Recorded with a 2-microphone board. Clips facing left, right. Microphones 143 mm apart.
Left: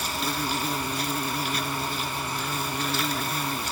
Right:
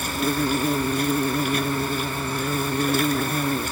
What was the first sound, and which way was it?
An insect, 50° right (ahead or behind).